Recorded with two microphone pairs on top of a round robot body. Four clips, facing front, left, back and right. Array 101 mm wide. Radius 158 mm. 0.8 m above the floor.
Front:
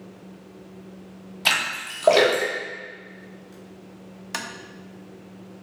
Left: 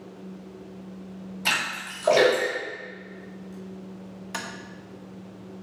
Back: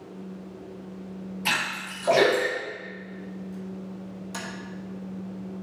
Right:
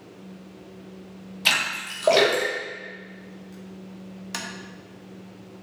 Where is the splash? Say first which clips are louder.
Right 2 dB, front 3 dB; 40° right, 3 m.